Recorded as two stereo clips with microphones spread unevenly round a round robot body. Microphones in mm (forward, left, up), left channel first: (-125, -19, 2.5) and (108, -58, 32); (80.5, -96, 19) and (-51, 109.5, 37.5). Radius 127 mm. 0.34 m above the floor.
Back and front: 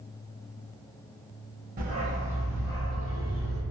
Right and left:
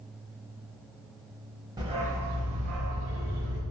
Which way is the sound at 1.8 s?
50° left.